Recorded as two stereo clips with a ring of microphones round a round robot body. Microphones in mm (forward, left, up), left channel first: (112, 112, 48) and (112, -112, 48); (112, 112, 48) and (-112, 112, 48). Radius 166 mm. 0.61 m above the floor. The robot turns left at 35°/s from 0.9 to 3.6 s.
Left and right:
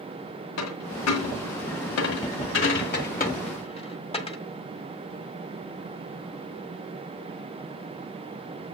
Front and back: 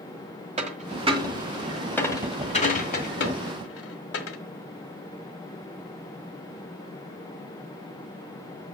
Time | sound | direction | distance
0.6 | a dropped coin | 120° left | 1.6 m